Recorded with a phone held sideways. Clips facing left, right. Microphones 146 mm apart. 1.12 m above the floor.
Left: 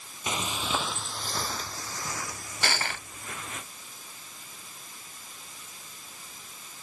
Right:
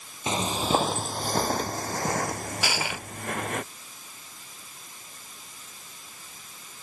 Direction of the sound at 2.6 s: 10° right (ahead or behind).